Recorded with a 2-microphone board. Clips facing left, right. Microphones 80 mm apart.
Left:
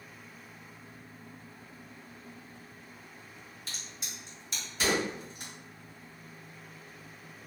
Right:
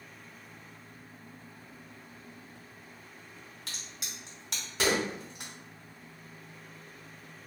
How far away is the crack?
About 1.0 m.